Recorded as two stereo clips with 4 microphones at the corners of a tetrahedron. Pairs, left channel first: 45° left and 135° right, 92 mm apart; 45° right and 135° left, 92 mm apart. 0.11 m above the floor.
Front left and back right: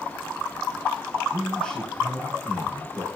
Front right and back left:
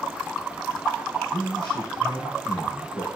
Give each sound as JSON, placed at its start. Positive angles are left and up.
{"t": 1.3, "sound": "a man speaking", "azimuth_deg": -30, "distance_m": 4.0}